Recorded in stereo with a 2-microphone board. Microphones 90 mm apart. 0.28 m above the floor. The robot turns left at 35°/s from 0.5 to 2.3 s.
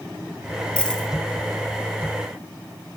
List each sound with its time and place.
0.8 s a dropped coin: 15° left (ahead or behind), 1.7 m; by 1.1 s 5° left (ahead or behind), 1.7 m